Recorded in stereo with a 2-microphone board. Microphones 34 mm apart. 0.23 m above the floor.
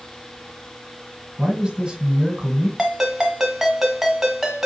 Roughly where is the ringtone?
Centre.